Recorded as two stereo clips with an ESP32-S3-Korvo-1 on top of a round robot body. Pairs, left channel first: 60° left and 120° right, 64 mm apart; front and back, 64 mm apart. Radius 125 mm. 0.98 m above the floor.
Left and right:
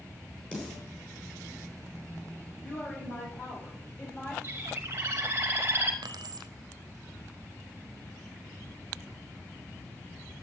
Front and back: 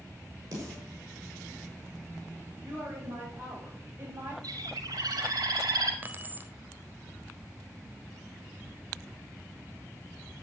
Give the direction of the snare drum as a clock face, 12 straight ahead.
8 o'clock.